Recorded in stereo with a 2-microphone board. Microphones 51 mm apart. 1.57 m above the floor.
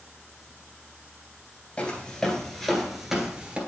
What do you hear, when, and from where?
1.8 s footsteps: 25° left (ahead or behind), 1.7 m; by 3.6 s 20° right (ahead or behind), 1.6 m